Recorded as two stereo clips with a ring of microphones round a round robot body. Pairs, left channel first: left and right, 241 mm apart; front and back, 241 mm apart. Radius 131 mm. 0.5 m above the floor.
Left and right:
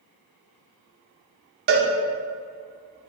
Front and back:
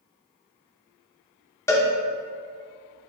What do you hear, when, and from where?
1.7 s a cowbell: 75° right, 0.6 m